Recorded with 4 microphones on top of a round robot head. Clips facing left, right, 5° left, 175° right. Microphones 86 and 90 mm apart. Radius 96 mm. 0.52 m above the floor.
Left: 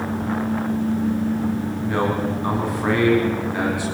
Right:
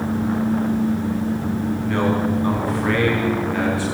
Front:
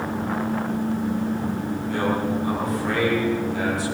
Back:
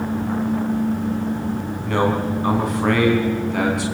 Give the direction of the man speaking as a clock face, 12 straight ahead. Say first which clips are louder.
Right 1 dB, back 4 dB; 6 o'clock.